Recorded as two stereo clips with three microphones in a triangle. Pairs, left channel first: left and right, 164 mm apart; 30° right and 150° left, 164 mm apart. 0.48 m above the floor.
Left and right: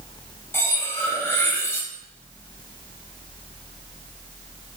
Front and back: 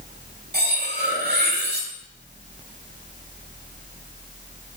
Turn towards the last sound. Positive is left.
turn(degrees=165)